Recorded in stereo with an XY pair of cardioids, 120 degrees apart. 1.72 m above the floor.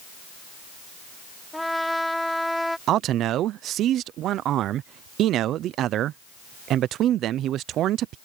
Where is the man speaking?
65° right.